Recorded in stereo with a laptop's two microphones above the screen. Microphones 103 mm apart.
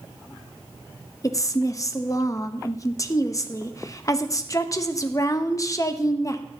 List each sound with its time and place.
1.2 s a woman speaking: 30° left (ahead or behind), 0.8 m